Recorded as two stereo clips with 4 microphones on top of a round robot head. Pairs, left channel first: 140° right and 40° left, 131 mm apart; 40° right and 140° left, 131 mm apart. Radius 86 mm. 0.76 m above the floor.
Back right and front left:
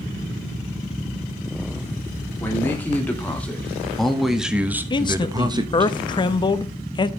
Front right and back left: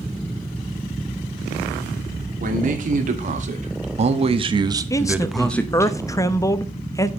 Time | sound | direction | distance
2.4 | a man speaking | 145° left | 2.5 m
4.9 | a man speaking | 95° right | 0.7 m